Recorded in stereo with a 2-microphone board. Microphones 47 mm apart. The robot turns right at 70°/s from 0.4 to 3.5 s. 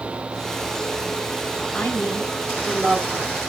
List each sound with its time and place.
1.7 s a woman speaking: 135° left, 1.8 m; by 3.4 s 110° right, 1.8 m